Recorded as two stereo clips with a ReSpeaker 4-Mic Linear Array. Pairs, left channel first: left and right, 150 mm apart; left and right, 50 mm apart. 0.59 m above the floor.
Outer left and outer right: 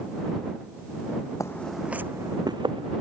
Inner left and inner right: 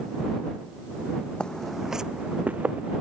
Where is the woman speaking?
No woman speaking in this recording.